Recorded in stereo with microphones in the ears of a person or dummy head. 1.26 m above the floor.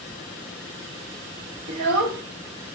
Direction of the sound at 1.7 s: 60° right (ahead or behind).